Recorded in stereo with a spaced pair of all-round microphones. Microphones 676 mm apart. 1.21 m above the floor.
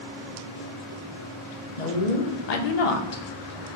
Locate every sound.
1.8 s a woman speaking: 80° left, 1.1 m; by 3.2 s 35° left (ahead or behind), 0.7 m